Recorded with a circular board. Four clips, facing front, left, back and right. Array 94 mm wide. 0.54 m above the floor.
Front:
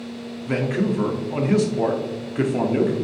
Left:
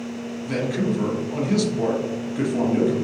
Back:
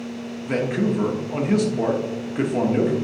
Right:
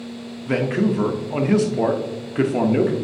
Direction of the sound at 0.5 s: 85° right.